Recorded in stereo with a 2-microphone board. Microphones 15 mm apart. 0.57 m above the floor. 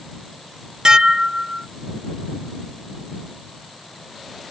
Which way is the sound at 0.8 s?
60° right (ahead or behind).